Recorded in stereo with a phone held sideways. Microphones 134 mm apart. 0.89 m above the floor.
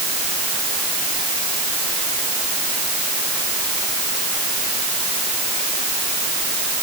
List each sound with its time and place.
Only background noise.